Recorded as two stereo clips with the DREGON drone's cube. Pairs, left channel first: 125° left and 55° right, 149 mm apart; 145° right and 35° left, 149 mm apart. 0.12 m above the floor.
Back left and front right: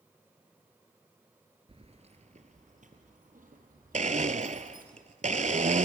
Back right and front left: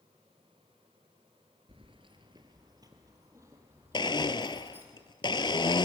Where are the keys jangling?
10° right, 1.6 m; by 4.8 s 45° right, 3.5 m.